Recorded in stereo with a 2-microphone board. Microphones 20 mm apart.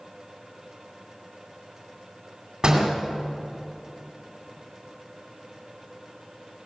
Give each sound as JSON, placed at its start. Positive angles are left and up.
{"t": 2.6, "sound": "a door slam", "side_deg": -45, "distance_m": 2.5}